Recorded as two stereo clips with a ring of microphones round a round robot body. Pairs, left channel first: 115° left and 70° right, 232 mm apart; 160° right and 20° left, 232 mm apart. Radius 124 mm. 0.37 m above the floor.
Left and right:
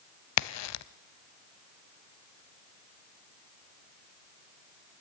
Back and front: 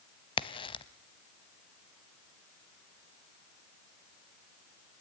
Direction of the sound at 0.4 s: 130° left.